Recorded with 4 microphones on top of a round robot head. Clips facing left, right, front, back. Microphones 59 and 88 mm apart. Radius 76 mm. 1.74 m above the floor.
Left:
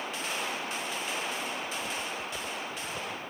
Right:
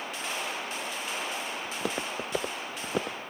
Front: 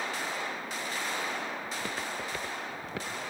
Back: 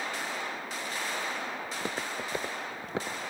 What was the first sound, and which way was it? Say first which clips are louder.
Footsteps: right 2 dB, back 1 dB; 105° right.